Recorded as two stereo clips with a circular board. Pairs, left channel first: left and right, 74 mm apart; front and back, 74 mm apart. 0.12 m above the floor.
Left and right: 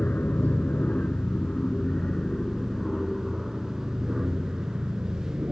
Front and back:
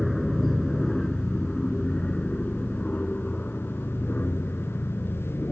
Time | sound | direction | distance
0.0 | an aircraft | 90° left | ?